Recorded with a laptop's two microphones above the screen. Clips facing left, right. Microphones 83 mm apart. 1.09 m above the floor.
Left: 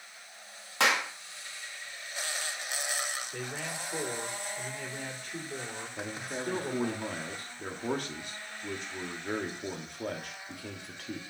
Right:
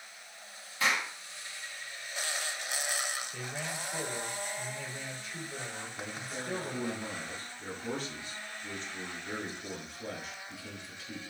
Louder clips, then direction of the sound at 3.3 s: Left 1 dB; 55° left (ahead or behind).